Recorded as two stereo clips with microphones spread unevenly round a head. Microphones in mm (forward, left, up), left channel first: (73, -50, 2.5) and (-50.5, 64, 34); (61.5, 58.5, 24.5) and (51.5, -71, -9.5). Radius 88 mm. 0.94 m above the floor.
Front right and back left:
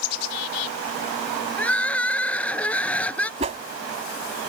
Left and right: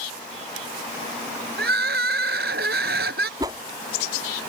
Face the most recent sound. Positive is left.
turn(degrees=-170)